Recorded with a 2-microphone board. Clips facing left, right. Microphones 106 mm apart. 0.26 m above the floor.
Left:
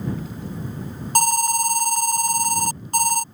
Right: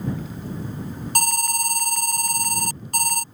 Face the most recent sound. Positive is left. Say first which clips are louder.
# left 7 dB
turn(degrees=25)  # may be behind; listen again after turning